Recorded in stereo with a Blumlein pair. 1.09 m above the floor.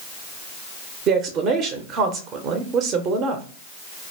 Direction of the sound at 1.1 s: 30° right.